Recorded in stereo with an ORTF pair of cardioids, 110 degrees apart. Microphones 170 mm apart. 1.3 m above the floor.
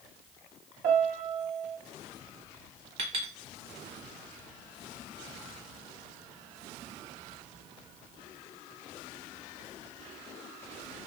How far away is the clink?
About 1.3 m.